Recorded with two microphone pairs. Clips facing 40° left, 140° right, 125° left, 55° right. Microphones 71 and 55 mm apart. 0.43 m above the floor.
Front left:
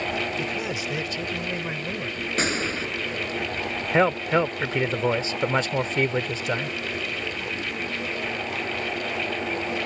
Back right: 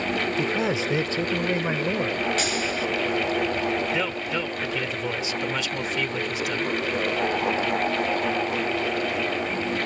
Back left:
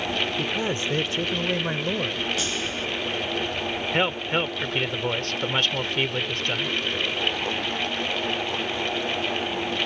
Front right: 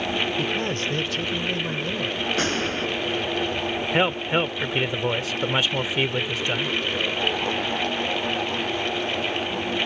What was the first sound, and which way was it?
A man speaking, 160° right.